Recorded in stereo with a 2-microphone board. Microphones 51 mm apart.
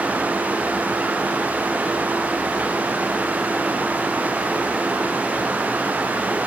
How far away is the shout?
I don't hear a shout.